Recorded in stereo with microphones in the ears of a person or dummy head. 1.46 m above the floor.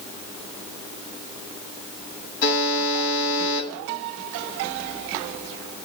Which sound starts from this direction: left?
A buzzer, at 2.4 s.